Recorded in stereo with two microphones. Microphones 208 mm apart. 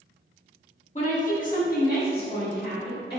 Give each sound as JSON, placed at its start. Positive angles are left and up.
{"t": 0.9, "sound": "a woman speaking", "side_deg": 35, "distance_m": 1.2}